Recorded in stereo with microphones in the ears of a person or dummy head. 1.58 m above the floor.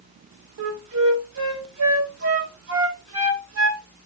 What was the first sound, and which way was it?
A flute, 65° right (ahead or behind).